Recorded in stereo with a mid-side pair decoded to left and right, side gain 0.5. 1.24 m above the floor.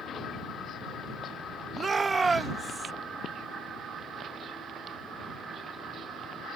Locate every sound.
1.8 s a shout: 35° right; by 2.9 s 15° right